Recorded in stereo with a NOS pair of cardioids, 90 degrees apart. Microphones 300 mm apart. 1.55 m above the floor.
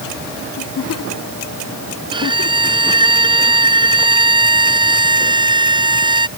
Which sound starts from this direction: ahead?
A violin, at 2.1 s.